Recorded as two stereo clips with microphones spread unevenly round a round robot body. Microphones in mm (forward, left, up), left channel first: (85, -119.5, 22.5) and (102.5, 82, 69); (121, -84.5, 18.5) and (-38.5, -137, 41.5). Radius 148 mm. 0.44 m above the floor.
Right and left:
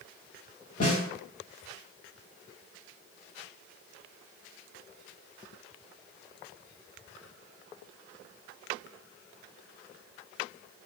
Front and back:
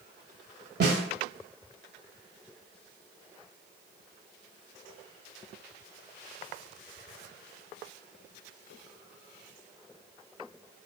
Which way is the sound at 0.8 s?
140° right.